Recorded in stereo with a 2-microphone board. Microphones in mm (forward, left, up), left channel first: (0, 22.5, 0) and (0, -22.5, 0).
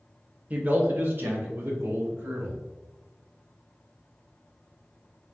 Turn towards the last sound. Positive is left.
turn(degrees=-65)  # may be behind; listen again after turning